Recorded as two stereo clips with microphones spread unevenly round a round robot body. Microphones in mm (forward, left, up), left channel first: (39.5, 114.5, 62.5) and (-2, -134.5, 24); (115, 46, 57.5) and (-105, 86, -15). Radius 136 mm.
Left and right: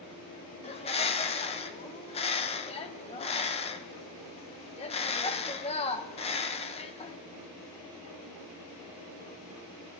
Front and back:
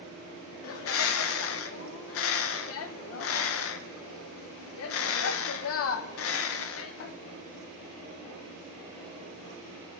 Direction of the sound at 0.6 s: 10° left.